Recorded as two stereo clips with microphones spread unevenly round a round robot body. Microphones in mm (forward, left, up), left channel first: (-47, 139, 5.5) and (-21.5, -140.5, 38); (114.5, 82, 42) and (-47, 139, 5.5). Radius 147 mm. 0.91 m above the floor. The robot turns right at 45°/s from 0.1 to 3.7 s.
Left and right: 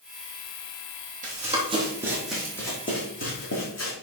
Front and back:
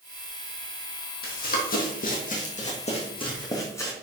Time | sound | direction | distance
1.2 | running footsteps | 25° right | 2.0 m